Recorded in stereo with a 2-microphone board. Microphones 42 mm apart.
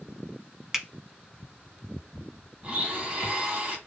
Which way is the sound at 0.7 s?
10° right (ahead or behind).